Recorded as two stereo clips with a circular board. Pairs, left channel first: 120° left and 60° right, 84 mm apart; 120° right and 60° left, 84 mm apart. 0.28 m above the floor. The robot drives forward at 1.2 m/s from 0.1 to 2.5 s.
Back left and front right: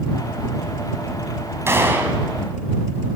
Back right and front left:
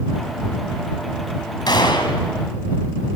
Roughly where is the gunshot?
Behind right.